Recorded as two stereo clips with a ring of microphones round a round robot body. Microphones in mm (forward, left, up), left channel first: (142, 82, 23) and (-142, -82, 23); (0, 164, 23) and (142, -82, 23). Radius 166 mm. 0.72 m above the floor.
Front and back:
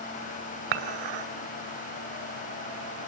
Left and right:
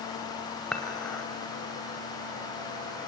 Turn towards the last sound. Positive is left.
turn(degrees=-150)